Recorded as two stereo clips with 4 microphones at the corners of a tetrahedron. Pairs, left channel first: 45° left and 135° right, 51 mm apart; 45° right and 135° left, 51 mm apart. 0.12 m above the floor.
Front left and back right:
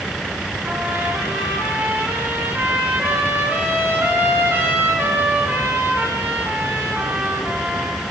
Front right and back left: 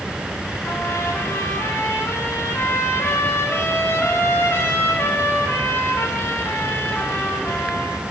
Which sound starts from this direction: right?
A trumpet, at 0.6 s.